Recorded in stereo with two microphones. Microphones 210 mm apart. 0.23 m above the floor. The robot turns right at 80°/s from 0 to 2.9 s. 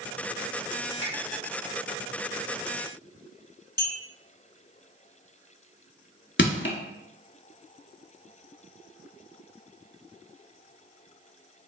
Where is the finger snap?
30° left (ahead or behind), 1.5 m; by 1.1 s 25° left (ahead or behind), 1.5 m.